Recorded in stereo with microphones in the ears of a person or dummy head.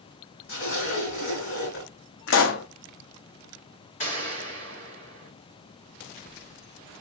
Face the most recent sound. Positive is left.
turn(degrees=45)  # may be behind; listen again after turning